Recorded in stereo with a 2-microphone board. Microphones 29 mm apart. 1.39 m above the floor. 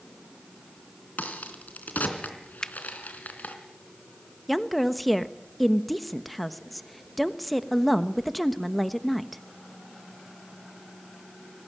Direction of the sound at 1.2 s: 70° left (ahead or behind).